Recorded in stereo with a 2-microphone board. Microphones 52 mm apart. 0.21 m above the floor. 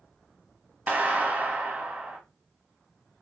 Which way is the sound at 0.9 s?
30° right (ahead or behind).